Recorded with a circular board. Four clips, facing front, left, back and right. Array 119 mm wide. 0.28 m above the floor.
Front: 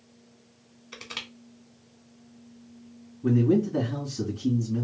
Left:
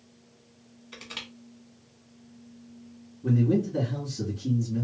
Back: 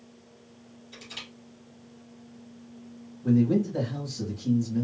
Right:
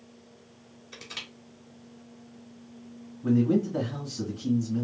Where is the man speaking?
5° right, 2 m.